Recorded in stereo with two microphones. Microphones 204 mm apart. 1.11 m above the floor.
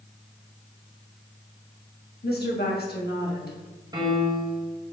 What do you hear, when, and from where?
2.2 s a woman speaking: 55° left (ahead or behind), 1.1 m
3.9 s a piano: 20° right (ahead or behind), 1.2 m